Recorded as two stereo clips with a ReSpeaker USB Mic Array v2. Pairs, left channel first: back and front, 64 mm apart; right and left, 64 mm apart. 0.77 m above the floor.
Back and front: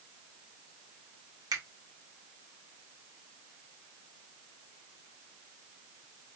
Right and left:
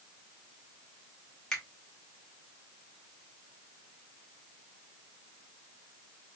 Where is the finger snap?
10° right, 1.7 m.